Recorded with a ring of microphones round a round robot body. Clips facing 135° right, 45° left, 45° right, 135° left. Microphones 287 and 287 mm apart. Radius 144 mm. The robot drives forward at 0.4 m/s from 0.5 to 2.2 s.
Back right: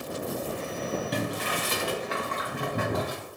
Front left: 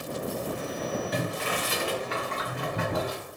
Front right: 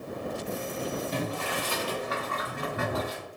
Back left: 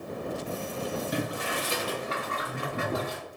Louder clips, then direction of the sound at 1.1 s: Even, even; 155° right.